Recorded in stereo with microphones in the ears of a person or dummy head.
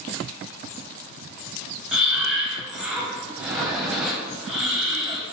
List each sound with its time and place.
1.9 s breathing: 5° right (ahead or behind), 0.6 m